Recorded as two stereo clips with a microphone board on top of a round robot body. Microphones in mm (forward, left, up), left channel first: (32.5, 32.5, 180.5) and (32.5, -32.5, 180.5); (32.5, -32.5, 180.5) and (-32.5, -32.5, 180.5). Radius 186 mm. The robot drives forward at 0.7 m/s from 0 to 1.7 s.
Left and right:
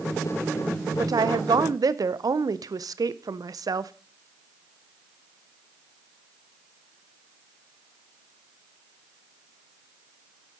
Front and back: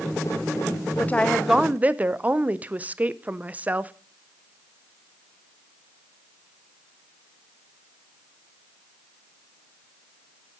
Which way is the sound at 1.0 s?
60° right.